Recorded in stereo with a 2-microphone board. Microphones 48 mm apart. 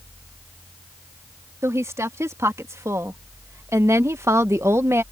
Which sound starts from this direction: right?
A woman speaking, at 1.6 s.